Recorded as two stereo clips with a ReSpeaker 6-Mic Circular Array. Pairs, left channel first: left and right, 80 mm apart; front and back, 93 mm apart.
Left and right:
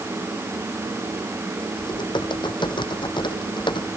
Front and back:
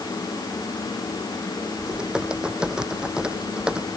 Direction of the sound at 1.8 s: 100° left.